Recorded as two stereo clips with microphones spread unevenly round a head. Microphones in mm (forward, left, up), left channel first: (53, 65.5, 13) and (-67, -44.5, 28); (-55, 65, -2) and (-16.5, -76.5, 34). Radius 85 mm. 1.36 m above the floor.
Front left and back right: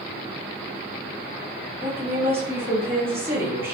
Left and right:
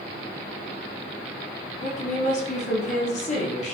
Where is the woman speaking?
145° left, 2.5 m.